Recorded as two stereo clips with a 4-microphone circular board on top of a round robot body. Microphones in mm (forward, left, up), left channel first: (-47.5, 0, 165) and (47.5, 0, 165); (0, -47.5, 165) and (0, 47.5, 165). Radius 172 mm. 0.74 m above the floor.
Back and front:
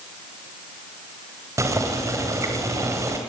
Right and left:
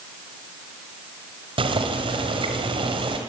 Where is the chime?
I don't hear a chime.